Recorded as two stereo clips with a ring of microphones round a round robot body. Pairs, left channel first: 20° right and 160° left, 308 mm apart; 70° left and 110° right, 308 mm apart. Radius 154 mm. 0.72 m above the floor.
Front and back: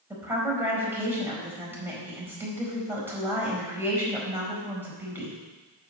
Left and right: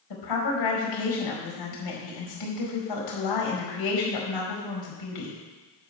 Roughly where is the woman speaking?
Left.